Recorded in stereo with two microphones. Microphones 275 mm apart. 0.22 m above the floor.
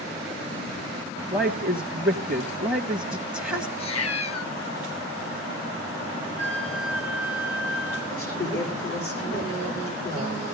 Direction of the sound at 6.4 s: 45° left (ahead or behind).